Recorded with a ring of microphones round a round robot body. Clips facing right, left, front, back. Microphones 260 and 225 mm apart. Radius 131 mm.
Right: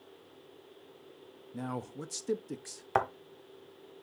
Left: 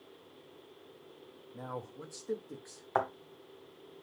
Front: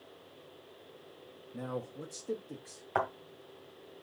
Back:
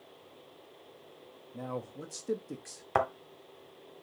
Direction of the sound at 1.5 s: 70° right.